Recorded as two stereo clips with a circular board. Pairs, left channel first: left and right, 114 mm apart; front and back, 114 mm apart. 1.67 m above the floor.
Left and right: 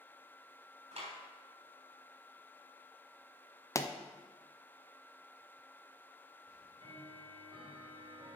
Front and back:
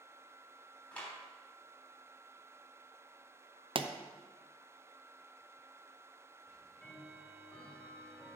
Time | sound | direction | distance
0.9 | a clap | 80° right | 3.5 m
3.8 | a pop | 150° left | 0.6 m
6.5 | ticking | 80° right | 2.0 m